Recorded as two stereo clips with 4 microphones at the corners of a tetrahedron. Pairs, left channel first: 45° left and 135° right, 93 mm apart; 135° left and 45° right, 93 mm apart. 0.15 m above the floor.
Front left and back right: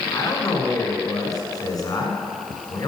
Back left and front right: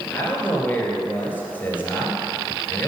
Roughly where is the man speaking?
Left.